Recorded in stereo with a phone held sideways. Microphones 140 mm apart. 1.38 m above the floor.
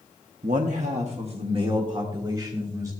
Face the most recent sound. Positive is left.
turn(degrees=-25)  # may be behind; listen again after turning